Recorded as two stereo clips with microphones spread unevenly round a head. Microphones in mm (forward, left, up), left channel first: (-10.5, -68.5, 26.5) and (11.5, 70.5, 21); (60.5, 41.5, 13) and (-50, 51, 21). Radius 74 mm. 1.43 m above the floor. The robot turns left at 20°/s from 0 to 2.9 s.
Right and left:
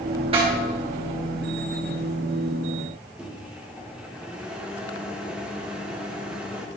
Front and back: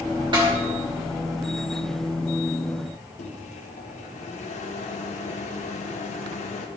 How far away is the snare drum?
About 3.5 m.